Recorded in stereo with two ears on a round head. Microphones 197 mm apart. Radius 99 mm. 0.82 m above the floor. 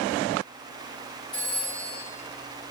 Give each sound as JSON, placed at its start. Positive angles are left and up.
{"t": 1.3, "sound": "a phone ringing", "side_deg": 25, "distance_m": 5.5}